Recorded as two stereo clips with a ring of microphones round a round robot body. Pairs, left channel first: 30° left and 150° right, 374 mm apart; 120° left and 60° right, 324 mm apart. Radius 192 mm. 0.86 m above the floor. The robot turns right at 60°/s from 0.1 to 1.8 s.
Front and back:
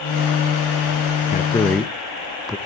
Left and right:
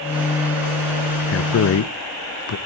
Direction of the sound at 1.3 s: 95° left.